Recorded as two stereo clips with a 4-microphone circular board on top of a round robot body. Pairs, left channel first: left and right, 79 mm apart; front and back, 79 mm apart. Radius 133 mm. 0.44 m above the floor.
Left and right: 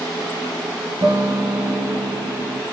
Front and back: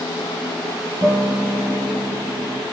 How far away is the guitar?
About 2.5 m.